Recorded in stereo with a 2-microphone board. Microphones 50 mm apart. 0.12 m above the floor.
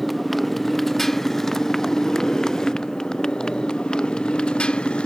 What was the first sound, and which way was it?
A motorcycle, centre (ahead or behind).